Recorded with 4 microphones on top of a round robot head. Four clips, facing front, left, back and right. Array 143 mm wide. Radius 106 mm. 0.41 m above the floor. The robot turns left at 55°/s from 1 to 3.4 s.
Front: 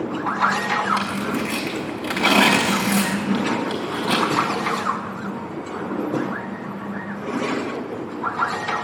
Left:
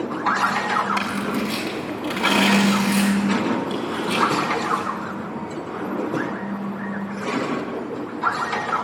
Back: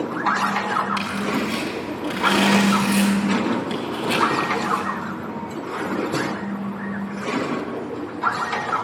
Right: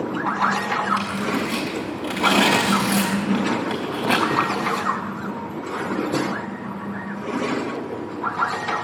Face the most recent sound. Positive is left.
turn(degrees=-75)